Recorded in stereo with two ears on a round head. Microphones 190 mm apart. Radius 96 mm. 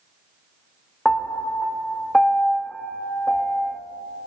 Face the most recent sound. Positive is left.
turn(degrees=5)  # may be behind; listen again after turning